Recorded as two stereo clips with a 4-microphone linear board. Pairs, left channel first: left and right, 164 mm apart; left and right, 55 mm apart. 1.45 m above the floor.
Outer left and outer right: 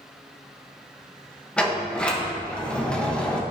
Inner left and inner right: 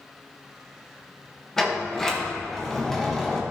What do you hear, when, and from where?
1.6 s a sliding door: 5° left (ahead or behind), 1.3 m